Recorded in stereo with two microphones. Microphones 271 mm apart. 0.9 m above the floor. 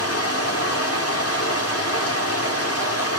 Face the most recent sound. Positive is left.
turn(degrees=60)  # may be behind; listen again after turning